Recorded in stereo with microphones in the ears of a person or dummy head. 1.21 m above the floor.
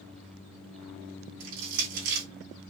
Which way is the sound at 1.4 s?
60° right (ahead or behind).